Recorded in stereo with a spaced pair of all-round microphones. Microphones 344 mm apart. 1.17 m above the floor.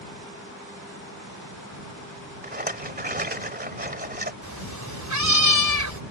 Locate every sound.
2.4 s a rattle: 25° right (ahead or behind)
4.4 s a cat meowing: 55° right (ahead or behind)